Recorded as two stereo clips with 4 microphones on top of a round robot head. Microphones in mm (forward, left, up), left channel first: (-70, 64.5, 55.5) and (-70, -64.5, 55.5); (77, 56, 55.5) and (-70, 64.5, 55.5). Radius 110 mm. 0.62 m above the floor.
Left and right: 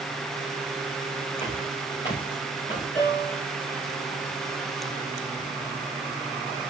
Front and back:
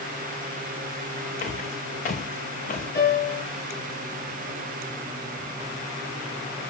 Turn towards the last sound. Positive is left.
turn(degrees=5)